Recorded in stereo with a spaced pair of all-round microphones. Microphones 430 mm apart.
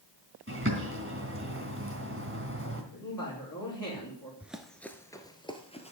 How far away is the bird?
About 2.5 m.